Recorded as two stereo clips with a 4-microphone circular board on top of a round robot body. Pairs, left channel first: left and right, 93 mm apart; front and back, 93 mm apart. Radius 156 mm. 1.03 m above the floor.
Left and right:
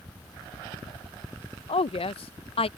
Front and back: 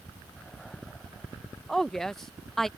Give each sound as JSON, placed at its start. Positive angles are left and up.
{"t": 1.7, "sound": "a woman speaking", "azimuth_deg": 85}